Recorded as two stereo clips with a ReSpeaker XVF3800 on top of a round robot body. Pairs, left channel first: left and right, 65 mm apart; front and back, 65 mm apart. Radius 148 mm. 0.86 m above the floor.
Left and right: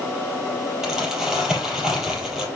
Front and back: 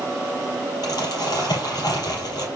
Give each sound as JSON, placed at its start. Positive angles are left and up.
{"t": 0.8, "sound": "crumpling", "azimuth_deg": -10, "distance_m": 3.5}